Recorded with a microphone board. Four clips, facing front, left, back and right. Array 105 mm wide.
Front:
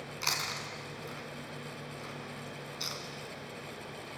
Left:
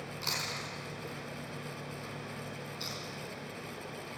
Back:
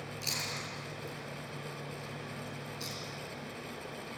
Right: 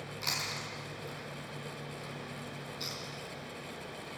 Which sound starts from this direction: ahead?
Chewing, at 0.2 s.